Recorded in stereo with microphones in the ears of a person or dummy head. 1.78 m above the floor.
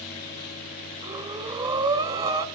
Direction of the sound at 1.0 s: 20° right (ahead or behind).